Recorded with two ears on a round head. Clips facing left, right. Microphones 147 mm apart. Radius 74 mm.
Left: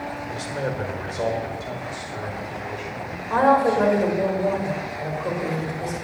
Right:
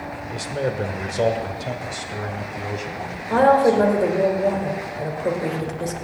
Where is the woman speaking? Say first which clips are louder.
Right 3 dB; 30° right (ahead or behind), 1.8 m.